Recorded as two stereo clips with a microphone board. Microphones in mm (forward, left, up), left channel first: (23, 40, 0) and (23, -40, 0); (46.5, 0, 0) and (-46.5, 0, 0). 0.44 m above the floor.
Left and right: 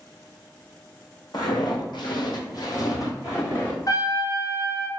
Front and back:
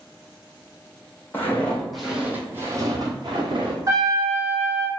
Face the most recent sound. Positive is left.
turn(degrees=125)